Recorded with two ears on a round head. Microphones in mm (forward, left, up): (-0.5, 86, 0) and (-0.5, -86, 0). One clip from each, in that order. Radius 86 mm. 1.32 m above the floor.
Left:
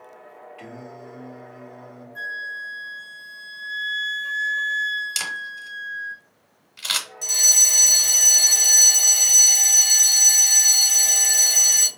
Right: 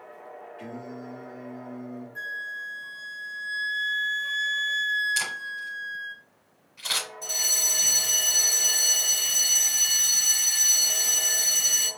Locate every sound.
0.6 s singing: 65° left (ahead or behind), 2.5 m
2.1 s a flute: centre (ahead or behind), 0.7 m
5.2 s a camera shutter: 70° left (ahead or behind), 3 m
7.2 s a fire alarm: 60° left (ahead or behind), 2.5 m